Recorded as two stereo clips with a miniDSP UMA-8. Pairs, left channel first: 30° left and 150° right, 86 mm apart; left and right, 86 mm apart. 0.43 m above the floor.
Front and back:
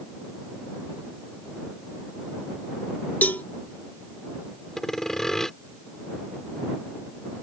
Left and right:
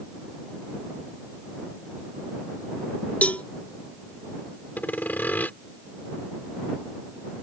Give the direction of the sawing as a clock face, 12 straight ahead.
9 o'clock.